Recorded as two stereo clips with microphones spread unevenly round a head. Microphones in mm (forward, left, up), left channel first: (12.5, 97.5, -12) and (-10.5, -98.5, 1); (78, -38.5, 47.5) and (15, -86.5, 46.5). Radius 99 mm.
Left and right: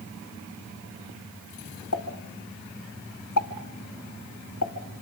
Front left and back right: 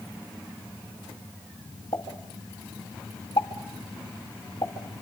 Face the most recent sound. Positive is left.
turn(degrees=100)